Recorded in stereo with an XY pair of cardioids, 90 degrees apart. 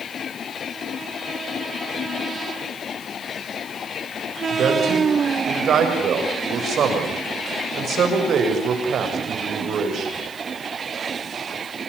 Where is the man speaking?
70° right, 7.5 m.